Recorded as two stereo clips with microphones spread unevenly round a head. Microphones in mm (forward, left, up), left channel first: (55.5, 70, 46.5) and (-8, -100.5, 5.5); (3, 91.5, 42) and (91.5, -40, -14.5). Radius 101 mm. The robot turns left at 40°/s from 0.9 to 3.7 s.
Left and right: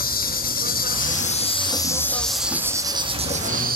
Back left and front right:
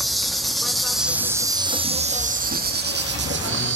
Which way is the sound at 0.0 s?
40° left.